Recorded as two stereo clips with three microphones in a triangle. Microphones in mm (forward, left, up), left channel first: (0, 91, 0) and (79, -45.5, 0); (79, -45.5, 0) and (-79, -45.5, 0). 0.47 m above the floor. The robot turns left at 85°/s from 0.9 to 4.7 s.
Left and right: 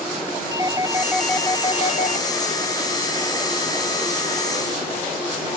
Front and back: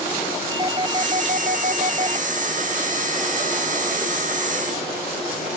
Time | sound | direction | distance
0.5 | a doorbell | 125° right | ?